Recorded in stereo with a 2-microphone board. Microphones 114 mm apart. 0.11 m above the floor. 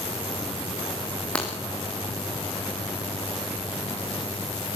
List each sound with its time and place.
1.4 s breaking glass: 10° left (ahead or behind), 6.5 m